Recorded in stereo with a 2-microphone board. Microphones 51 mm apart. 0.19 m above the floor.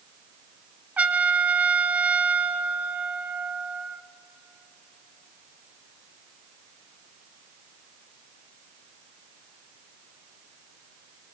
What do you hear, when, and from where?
1.0 s a trumpet: 30° right (ahead or behind), 0.8 m